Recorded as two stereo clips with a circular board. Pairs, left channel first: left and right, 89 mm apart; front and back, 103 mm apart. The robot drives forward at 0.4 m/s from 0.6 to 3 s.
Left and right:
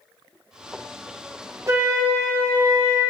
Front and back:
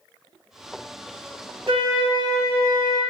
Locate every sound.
1.7 s a flute: 145° right, 0.6 m; by 3.0 s 160° right, 1.1 m